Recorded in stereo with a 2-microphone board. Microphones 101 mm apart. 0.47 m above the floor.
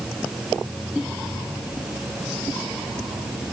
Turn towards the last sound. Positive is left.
No sound to turn to.